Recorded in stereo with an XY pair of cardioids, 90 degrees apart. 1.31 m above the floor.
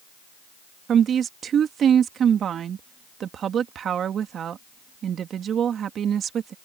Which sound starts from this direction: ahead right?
A woman speaking, at 0.9 s.